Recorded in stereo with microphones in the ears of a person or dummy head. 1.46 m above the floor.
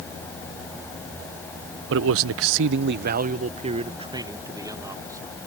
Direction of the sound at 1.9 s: 65° right (ahead or behind).